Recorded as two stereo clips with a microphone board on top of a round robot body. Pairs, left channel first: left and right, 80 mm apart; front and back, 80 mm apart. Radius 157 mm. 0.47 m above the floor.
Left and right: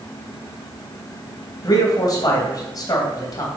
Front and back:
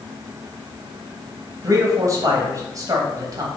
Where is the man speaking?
130° left, 3 m.